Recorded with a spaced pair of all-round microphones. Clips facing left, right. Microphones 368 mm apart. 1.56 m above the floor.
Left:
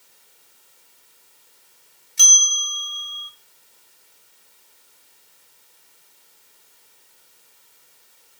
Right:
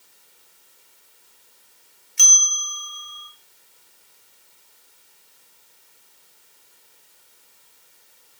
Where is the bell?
50° left (ahead or behind), 0.6 m.